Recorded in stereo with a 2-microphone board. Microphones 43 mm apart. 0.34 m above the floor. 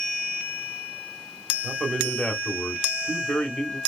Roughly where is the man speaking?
Left.